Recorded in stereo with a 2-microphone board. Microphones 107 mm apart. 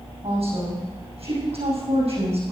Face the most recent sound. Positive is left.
turn(degrees=-70)  # may be behind; listen again after turning